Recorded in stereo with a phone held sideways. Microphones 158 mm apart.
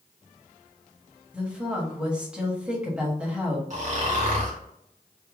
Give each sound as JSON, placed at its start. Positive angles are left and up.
{"t": 1.3, "sound": "a woman speaking", "side_deg": -5, "distance_m": 1.2}
{"t": 3.7, "sound": "snoring", "side_deg": -50, "distance_m": 1.1}